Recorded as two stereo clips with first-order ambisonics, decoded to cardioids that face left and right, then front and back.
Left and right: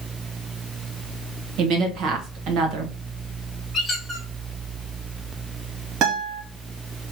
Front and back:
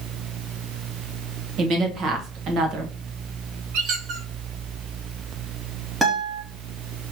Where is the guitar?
100° right, 1.3 m.